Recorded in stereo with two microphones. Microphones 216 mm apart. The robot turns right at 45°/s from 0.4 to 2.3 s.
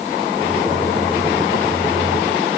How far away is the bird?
No bird in this recording.